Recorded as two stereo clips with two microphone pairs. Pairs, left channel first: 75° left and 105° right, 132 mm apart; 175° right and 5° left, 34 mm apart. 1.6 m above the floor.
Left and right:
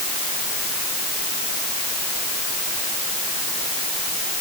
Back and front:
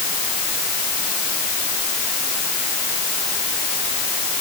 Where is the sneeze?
I don't hear a sneeze.